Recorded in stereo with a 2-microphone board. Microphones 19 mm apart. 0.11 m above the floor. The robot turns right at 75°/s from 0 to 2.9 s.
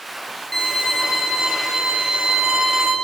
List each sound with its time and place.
0.5 s a violin: 165° left, 1.8 m; by 3.0 s 20° right, 1.8 m